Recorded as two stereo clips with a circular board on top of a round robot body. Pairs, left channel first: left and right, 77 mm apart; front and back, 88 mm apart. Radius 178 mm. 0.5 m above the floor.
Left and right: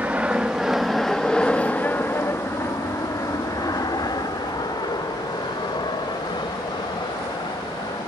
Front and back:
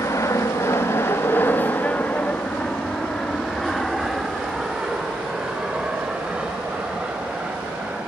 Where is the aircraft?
30° right; by 8.1 s 100° left.